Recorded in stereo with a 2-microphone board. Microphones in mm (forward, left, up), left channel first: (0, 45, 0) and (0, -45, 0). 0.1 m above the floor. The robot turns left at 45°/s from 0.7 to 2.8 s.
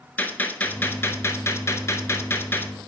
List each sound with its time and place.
0.2 s a gunshot: 135° left, 0.6 m; by 2.7 s 45° left, 0.6 m